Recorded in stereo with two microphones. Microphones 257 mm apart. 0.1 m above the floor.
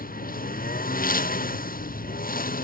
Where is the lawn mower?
35° left (ahead or behind).